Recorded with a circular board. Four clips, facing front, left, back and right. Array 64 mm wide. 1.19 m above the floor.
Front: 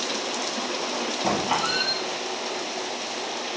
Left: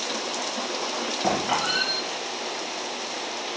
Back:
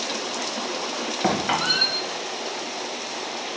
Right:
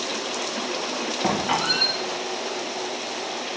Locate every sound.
1.2 s a squeak: 165° right, 3 m